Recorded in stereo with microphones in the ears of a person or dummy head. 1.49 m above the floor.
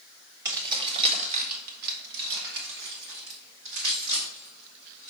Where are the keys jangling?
25° right (ahead or behind), 1.5 m; by 5.1 s 55° right (ahead or behind), 3 m.